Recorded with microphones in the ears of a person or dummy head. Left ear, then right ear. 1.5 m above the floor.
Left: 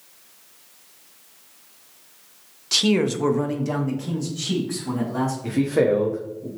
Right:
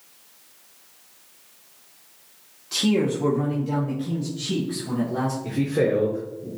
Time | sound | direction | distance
2.7 | a man speaking | 25° left (ahead or behind) | 0.7 m
5.4 | a man speaking | 65° left (ahead or behind) | 0.8 m